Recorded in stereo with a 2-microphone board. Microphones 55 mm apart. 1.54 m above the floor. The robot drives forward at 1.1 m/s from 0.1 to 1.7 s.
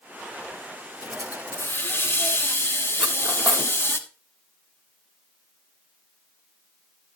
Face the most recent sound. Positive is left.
turn(degrees=-20)  # may be behind; listen again after turning